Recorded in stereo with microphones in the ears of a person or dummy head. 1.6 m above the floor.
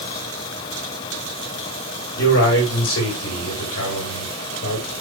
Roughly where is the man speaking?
Left.